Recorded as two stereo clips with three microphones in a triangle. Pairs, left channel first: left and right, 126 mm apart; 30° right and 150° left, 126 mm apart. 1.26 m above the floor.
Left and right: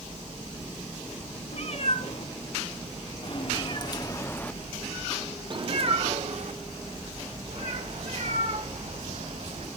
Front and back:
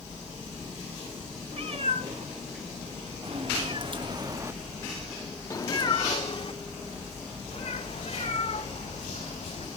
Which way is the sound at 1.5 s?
115° left.